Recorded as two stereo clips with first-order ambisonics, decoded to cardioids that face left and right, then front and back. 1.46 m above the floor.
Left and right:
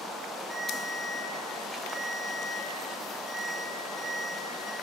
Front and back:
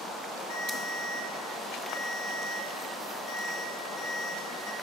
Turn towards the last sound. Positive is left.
turn(degrees=-15)